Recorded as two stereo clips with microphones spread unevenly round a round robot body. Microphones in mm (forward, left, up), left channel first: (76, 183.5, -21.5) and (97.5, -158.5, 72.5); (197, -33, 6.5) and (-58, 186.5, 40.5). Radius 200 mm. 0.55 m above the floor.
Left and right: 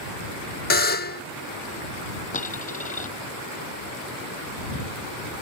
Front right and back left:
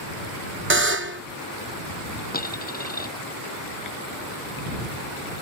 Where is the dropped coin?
25° left.